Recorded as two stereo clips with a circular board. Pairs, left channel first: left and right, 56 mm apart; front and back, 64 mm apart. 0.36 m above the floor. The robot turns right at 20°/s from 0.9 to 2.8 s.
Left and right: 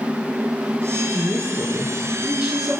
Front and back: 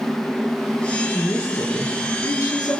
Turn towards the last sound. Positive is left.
turn(degrees=-10)